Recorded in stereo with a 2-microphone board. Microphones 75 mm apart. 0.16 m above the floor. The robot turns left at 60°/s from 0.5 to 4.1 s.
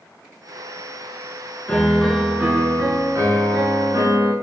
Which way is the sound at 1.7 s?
25° left.